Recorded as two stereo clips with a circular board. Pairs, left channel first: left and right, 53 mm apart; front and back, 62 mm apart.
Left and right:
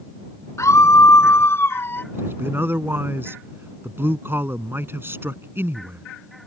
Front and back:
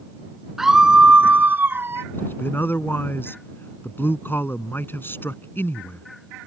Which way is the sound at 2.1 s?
50° right.